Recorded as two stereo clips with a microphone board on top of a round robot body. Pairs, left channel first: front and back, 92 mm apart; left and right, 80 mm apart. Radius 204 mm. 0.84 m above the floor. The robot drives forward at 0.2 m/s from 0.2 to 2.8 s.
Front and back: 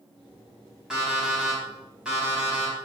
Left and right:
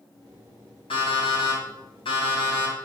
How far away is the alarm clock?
About 4.5 m.